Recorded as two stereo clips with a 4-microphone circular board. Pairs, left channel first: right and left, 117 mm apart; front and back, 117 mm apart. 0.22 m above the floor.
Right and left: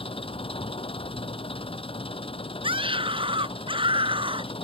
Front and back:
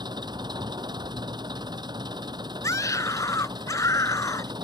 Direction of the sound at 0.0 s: 130° right.